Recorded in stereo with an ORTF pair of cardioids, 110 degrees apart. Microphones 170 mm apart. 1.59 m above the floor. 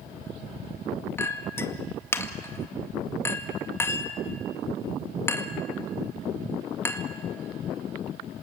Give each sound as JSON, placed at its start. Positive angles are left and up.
{"t": 1.2, "sound": "a clink", "azimuth_deg": 15, "distance_m": 1.9}